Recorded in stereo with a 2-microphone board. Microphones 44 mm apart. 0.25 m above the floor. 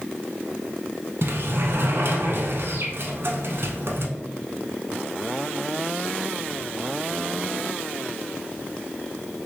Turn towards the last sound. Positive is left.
turn(degrees=-60)  # may be behind; listen again after turning